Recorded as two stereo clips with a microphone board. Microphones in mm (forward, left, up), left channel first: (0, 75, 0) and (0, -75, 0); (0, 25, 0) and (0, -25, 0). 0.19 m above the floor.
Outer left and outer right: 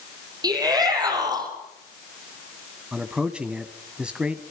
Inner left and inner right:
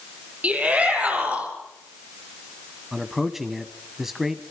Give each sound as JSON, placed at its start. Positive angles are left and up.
{"t": 0.4, "sound": "a shout", "side_deg": -25, "distance_m": 7.0}
{"t": 2.9, "sound": "a man speaking", "side_deg": -5, "distance_m": 1.2}